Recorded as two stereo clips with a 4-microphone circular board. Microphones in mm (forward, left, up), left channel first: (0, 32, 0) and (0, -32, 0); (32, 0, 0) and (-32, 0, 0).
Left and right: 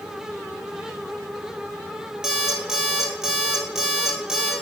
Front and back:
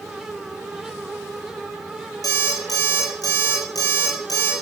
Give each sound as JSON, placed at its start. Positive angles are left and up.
{"t": 2.2, "sound": "an alarm clock", "azimuth_deg": -10, "distance_m": 1.7}